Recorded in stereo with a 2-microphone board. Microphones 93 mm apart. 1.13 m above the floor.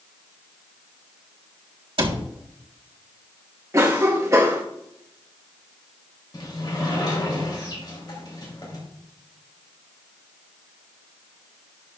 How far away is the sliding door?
About 3.5 m.